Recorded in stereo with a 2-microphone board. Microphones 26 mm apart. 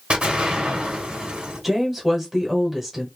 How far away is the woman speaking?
About 1.2 m.